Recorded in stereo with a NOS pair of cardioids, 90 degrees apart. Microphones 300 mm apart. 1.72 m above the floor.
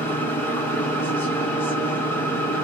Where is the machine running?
5° left, 1.3 m.